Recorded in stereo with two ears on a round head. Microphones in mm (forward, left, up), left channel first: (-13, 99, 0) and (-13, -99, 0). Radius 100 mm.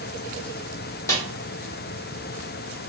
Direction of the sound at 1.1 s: 15° left (ahead or behind).